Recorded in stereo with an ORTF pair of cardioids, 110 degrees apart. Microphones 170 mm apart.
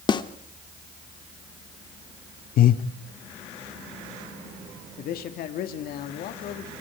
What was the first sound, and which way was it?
A snare drum, 30° left.